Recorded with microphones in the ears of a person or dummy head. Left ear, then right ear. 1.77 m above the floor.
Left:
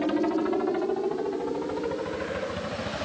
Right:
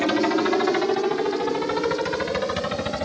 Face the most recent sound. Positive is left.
turn(degrees=-60)  # may be behind; listen again after turning